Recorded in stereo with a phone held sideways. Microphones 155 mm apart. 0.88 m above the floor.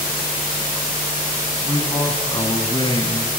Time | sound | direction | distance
1.6 | a man speaking | 30° left (ahead or behind) | 7 m